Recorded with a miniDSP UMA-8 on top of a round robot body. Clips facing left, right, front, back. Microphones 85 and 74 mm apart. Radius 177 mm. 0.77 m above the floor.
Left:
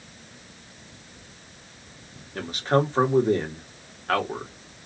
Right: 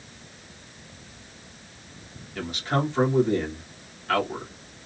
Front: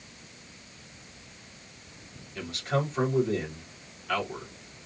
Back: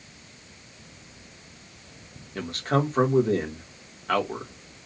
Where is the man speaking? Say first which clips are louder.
Left 4 dB, back 4 dB; 140° left, 1.9 m.